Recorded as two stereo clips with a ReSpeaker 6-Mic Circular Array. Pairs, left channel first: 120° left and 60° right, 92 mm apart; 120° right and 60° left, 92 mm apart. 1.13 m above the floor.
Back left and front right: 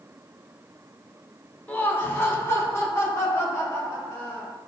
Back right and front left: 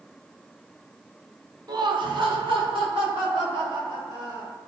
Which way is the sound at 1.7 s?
55° left.